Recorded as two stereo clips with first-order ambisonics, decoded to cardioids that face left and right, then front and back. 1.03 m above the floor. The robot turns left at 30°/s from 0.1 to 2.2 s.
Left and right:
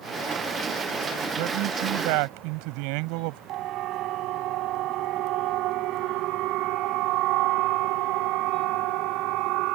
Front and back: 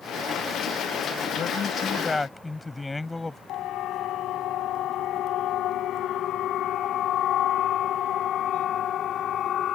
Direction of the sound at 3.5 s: 50° right.